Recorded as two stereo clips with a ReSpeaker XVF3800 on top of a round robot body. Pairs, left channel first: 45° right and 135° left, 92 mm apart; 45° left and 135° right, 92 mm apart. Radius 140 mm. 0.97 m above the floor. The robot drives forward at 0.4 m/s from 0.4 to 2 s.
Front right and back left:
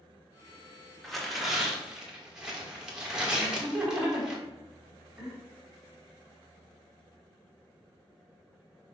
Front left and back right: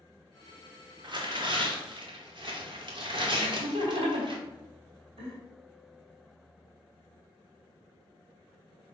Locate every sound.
1.0 s tearing paper: 135° right, 1.4 m; by 4.4 s 145° right, 1.6 m
3.4 s laughter: 140° right, 2.5 m